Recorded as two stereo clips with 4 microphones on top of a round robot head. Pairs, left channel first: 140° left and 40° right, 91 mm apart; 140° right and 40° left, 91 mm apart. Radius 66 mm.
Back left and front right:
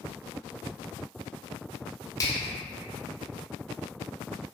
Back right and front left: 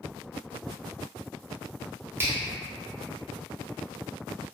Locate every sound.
2.2 s a finger snap: 100° left, 0.7 m